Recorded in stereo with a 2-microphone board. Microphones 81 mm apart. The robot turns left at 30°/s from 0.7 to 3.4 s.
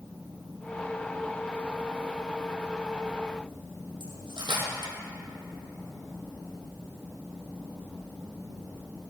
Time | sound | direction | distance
4.0 | cutlery clinking | 75° right (ahead or behind) | 2.5 m